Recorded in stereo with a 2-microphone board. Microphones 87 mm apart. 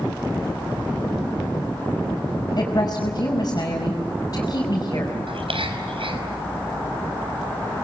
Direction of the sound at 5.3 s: 80° right.